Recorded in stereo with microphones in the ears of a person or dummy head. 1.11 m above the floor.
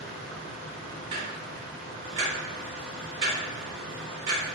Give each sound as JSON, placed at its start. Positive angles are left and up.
{"t": 0.0, "sound": "a machine running", "side_deg": -75, "distance_m": 1.3}
{"t": 1.1, "sound": "ticking", "side_deg": -60, "distance_m": 1.4}